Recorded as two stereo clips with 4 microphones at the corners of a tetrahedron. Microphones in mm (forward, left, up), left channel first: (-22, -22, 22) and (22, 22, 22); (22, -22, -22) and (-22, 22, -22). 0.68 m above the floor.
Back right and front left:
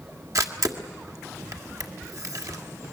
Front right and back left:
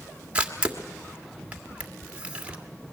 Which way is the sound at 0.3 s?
65° left.